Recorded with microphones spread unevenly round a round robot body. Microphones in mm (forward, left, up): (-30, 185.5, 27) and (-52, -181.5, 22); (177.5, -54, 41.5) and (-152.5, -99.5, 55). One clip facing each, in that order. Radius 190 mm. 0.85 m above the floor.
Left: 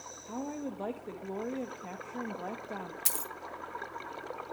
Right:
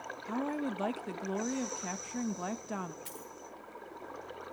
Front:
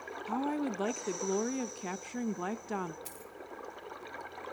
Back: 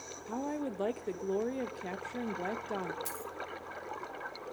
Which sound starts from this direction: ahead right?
A woman speaking, at 0.3 s.